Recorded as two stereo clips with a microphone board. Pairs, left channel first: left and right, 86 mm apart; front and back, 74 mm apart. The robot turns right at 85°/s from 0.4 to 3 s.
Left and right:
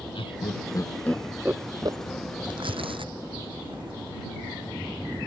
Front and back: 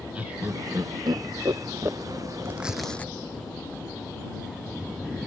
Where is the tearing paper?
120° right; by 4.0 s 75° right.